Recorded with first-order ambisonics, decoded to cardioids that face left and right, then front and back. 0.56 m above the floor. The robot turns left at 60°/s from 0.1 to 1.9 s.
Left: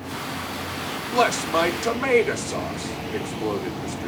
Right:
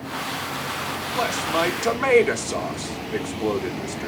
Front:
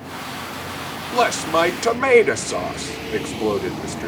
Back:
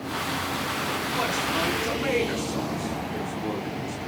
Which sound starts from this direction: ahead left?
A man speaking, at 1.1 s.